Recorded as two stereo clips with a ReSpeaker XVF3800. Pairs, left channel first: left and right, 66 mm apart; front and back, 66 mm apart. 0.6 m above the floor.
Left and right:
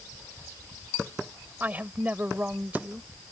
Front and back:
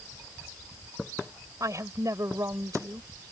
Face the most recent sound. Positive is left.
turn(degrees=-150)